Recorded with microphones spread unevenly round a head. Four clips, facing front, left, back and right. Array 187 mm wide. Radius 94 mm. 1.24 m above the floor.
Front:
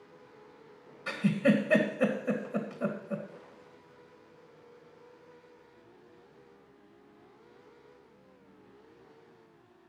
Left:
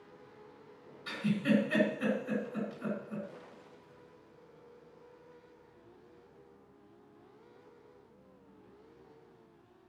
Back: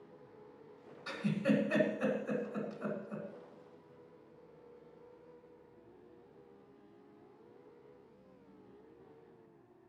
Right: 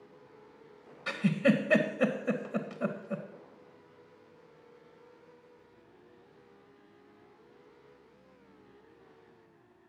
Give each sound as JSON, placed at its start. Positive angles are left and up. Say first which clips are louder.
{"t": 1.1, "sound": "a giggle", "louder": "right 3 dB, front 6 dB", "azimuth_deg": -50, "distance_m": 1.7}